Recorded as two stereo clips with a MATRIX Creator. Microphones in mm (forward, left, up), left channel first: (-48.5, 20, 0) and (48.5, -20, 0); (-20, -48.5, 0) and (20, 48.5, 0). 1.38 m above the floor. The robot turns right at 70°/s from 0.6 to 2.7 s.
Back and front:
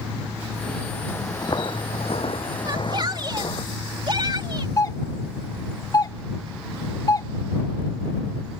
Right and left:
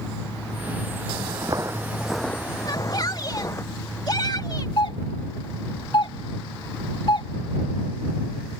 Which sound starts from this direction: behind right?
A doorbell, at 4.8 s.